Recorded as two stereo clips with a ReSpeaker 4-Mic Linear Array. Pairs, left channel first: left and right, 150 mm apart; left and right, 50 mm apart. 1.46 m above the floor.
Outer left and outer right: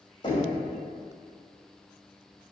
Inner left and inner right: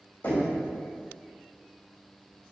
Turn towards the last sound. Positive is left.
turn(degrees=35)  # may be behind; listen again after turning